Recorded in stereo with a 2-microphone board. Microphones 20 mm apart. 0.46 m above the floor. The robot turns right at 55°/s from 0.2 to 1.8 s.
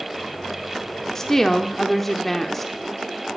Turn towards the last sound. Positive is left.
turn(degrees=10)  # may be behind; listen again after turning